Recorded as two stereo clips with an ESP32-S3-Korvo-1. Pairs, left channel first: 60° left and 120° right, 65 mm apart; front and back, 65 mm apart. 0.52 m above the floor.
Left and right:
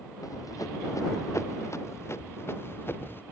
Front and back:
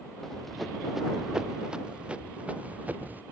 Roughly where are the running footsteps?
Left.